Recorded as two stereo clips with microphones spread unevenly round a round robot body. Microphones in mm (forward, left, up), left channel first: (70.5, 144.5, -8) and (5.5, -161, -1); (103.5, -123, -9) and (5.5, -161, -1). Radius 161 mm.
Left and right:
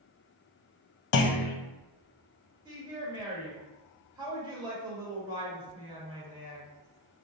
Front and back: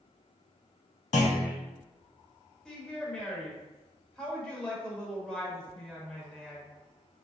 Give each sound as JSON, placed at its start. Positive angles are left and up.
{"t": 1.1, "sound": "a clunk", "azimuth_deg": 45, "distance_m": 0.5}
{"t": 2.6, "sound": "a woman speaking", "azimuth_deg": -40, "distance_m": 1.1}